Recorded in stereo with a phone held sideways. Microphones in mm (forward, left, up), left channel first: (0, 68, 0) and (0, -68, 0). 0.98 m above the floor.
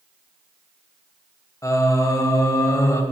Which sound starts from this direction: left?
Singing, at 1.6 s.